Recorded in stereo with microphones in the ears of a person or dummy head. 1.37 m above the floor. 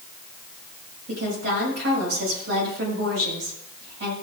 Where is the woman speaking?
65° right (ahead or behind), 7.5 m.